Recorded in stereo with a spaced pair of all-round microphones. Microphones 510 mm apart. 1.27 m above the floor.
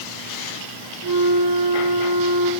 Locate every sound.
1.0 s a flute: 50° right (ahead or behind), 1.8 m